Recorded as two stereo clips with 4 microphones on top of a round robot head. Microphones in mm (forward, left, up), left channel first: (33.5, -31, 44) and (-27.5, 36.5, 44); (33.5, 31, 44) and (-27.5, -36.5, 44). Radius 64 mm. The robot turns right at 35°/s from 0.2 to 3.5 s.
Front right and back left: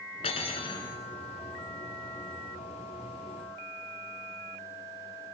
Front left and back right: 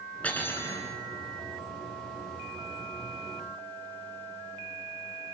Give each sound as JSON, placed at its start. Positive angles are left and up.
{"t": 0.2, "sound": "cutlery clinking", "azimuth_deg": -30, "distance_m": 3.0}